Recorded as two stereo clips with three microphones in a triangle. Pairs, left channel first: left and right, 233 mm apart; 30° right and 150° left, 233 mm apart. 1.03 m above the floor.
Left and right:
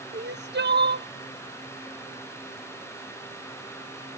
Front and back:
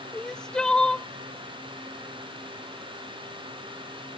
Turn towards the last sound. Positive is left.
turn(degrees=-115)